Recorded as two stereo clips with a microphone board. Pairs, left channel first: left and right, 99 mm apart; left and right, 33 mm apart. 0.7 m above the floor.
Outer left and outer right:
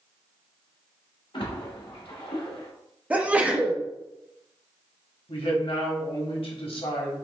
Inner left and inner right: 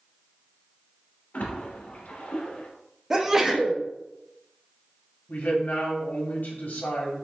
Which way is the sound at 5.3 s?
65° left (ahead or behind).